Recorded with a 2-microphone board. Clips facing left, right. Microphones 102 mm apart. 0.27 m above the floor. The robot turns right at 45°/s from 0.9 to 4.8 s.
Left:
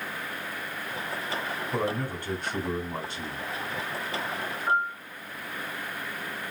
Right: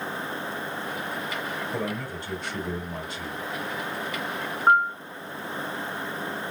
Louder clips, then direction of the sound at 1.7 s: Left 2 dB; 80° left.